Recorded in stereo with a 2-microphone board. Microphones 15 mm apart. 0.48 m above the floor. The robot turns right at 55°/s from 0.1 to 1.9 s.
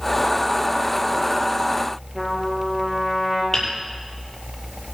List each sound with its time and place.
2.1 s a trumpet: 5° right (ahead or behind), 6.5 m
3.5 s hammering: 40° left (ahead or behind), 6.5 m